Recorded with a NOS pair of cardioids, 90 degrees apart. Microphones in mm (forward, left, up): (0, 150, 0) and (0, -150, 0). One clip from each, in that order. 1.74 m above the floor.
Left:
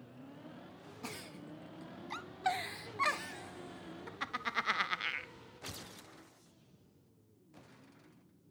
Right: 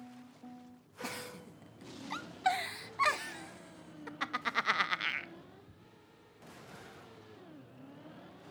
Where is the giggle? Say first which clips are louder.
Right 4 dB; 10° right, 0.5 m.